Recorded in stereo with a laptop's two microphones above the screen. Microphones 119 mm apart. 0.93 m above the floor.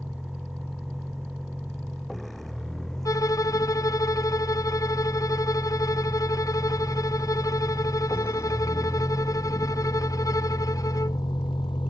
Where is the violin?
30° left (ahead or behind).